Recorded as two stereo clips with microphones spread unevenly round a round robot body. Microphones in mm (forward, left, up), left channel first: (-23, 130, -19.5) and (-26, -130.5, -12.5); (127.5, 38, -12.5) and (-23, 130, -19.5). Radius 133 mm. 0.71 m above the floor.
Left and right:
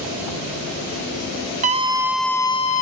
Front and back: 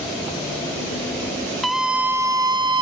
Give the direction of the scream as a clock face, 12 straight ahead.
4 o'clock.